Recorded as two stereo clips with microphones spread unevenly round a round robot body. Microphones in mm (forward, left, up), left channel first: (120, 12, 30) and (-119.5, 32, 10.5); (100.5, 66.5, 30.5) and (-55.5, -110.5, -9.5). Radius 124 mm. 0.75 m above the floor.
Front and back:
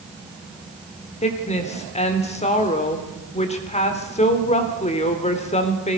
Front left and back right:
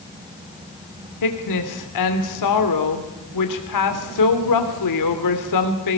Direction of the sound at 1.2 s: 60° left.